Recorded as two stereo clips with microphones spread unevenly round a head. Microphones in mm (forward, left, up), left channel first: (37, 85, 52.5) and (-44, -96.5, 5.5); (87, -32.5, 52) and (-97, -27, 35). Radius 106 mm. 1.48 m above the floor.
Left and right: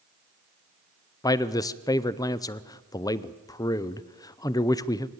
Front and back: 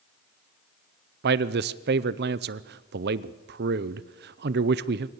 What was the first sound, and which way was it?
A man speaking, 140° left.